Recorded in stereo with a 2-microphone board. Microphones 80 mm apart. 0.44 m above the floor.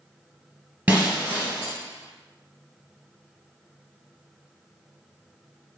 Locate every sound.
0.9 s breaking glass: 20° right (ahead or behind), 1.2 m